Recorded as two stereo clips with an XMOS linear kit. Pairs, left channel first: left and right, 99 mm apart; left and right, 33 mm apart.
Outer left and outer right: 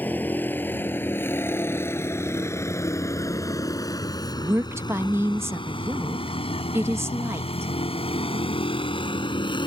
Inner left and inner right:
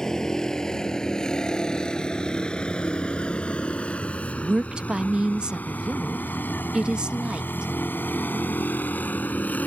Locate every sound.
0.0 s a vehicle: 20° left (ahead or behind); by 9.7 s 55° left (ahead or behind)
4.4 s a woman speaking: 25° right (ahead or behind)